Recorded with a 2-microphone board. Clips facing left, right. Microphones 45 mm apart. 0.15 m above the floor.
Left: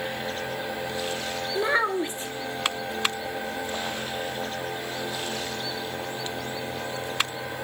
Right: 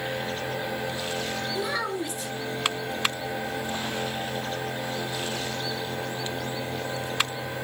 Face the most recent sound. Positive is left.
turn(degrees=35)  # may be behind; listen again after turning